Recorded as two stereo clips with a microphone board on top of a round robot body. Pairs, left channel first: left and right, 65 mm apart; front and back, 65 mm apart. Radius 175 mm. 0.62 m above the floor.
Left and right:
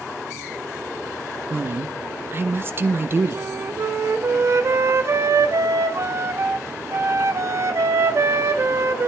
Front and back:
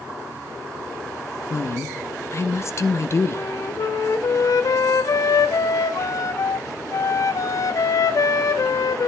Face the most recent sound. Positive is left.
turn(degrees=-40)